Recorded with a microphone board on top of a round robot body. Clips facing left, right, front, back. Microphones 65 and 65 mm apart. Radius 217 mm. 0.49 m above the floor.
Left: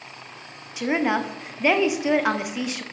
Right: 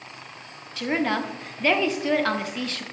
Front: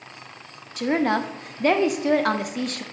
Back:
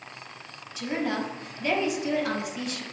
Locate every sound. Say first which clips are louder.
0.8 s a woman speaking: left 2 dB, front 7 dB; 15° left, 0.9 m